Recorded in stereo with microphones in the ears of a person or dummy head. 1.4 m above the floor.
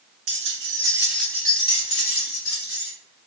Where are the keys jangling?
45° right (ahead or behind), 0.7 m; by 2.9 s 60° left (ahead or behind), 1.1 m.